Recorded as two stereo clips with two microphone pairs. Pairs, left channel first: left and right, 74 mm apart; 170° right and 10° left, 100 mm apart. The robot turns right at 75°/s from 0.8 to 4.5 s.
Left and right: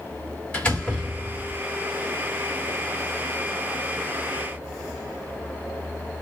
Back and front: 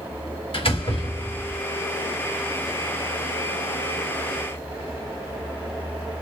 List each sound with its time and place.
0.5 s a door slam: 165° left, 2 m; by 1.6 s 135° right, 2 m